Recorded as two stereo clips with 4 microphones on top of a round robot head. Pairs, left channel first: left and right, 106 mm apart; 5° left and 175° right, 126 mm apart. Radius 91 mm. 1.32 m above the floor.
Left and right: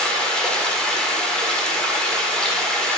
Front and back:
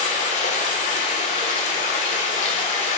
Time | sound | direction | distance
0.0 | running water | 10° left | 1.3 m